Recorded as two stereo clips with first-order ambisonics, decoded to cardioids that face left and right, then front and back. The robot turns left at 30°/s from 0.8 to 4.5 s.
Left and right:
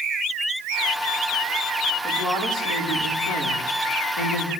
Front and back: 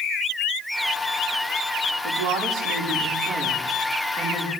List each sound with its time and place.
2.0 s a woman speaking: straight behind, 5.5 m; by 4.5 s 105° left, 5.5 m